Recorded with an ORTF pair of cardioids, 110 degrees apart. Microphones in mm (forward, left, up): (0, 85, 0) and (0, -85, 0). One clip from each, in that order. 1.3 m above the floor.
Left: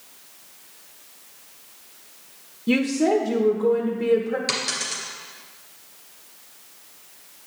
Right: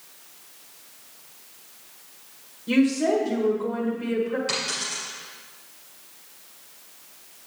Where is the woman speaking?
45° left, 1.0 m.